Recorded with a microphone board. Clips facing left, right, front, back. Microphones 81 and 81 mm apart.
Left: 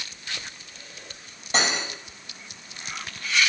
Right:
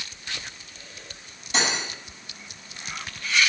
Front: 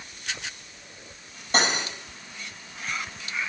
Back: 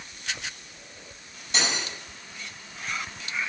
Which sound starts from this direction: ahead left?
Cutlery clinking, at 1.5 s.